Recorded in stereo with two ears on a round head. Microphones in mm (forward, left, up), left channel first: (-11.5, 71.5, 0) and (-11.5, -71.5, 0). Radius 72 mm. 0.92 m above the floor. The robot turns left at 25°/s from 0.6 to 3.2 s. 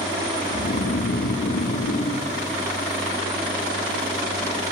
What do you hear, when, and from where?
0.5 s snoring: 110° left, 0.6 m; by 2.3 s 65° left, 0.6 m